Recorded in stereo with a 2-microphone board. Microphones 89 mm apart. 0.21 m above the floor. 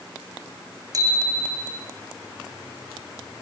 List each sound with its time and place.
0.9 s a bicycle bell: 40° right (ahead or behind), 7.5 m